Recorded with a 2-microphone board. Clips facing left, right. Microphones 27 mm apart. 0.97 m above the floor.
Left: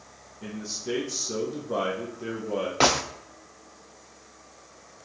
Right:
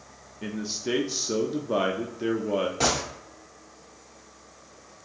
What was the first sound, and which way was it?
A man speaking, 30° right (ahead or behind).